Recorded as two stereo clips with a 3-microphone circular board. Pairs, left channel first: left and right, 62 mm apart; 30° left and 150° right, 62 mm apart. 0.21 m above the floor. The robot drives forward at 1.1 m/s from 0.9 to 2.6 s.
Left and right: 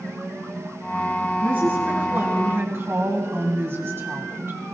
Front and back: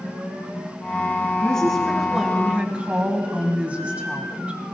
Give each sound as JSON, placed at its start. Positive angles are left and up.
{"t": 1.4, "sound": "a woman speaking", "azimuth_deg": -40, "distance_m": 2.0}